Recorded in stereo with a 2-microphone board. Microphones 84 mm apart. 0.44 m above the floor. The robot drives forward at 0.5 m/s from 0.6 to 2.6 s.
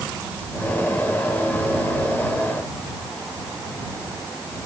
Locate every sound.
Only background noise.